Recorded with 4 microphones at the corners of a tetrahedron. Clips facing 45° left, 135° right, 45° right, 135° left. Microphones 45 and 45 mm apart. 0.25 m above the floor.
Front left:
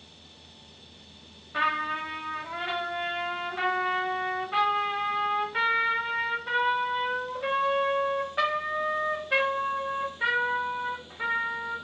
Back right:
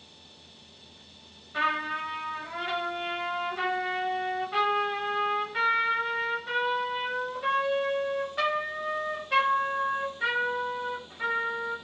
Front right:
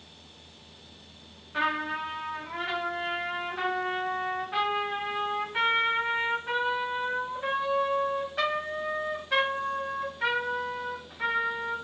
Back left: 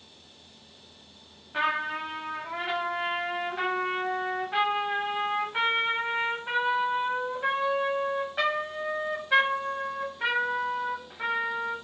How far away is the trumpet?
About 1.1 m.